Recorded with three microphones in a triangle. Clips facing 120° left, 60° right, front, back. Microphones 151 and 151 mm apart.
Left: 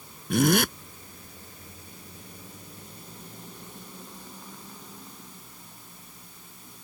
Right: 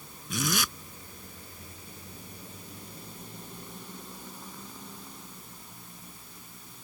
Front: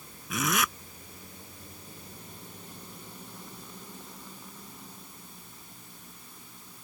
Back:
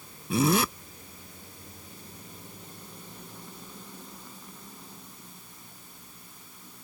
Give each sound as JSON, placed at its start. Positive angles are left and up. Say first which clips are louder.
{"t": 0.3, "sound": "a zipper", "louder": "left 10 dB, back 7 dB", "azimuth_deg": 130}